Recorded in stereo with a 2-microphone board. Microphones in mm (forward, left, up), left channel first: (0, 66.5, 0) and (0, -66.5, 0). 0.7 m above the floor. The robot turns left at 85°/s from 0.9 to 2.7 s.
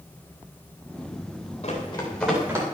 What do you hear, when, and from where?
1.6 s running footsteps: 60° left (ahead or behind), 8 m; by 2.6 s 25° right (ahead or behind), 8.5 m